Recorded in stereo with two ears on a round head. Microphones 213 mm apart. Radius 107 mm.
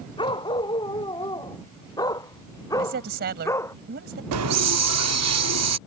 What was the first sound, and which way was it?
A dog barking, 20° left (ahead or behind).